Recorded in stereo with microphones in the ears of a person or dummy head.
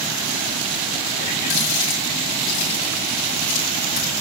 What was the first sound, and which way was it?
A running tap, 50° left (ahead or behind).